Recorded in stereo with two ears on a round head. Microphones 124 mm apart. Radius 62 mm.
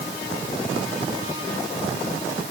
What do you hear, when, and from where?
Only background noise.